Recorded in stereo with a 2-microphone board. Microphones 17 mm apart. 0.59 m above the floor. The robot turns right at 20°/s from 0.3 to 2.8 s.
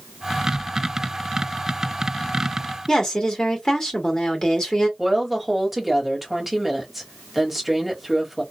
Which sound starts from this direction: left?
A woman speaking, at 2.9 s.